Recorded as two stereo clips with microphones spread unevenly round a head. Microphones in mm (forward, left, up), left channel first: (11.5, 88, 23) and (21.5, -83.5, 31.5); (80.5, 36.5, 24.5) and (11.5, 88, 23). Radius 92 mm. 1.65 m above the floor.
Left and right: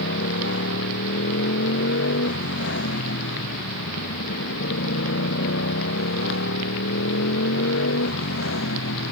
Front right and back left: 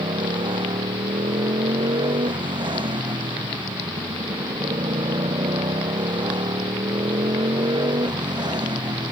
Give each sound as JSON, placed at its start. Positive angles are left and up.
{"t": 0.0, "sound": "a motorcycle", "azimuth_deg": 120}